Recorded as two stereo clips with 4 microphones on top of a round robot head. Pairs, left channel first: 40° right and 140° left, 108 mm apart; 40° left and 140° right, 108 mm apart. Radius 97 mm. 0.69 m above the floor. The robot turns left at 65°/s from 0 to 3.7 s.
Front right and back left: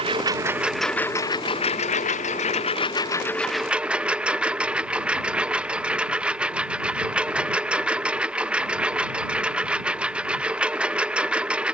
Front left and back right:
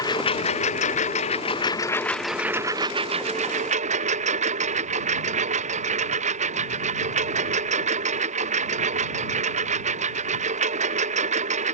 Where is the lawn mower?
100° left; by 11.7 s 140° right.